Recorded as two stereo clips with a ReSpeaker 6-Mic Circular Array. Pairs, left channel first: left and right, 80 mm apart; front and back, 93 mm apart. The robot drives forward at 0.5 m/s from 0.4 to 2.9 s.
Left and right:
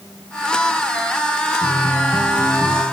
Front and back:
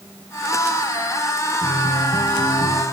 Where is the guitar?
10° right, 8.5 m.